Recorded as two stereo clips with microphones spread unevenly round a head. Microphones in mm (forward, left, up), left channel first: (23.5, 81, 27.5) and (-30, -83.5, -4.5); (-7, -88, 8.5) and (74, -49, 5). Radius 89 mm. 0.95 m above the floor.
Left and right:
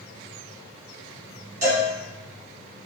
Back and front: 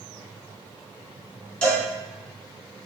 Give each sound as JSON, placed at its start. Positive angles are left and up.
{"t": 1.6, "sound": "a cowbell", "azimuth_deg": -80, "distance_m": 1.4}